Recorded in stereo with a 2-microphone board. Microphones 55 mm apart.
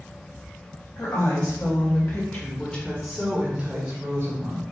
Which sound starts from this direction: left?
A woman speaking, at 1.0 s.